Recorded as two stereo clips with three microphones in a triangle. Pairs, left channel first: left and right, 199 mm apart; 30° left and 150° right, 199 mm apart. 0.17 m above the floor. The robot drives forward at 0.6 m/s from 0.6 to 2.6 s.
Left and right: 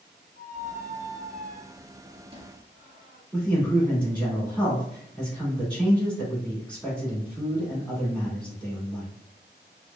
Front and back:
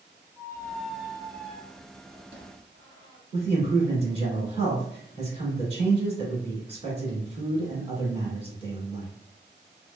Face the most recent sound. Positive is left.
turn(degrees=170)